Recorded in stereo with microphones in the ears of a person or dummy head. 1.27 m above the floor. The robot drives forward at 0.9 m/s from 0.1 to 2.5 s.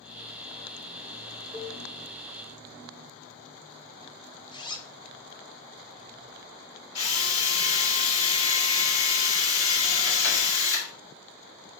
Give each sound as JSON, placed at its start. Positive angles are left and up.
{"t": 1.5, "sound": "a cowbell", "side_deg": 5, "distance_m": 1.6}
{"t": 4.5, "sound": "a zipper", "side_deg": 25, "distance_m": 0.7}
{"t": 7.0, "sound": "a drill", "side_deg": 80, "distance_m": 1.7}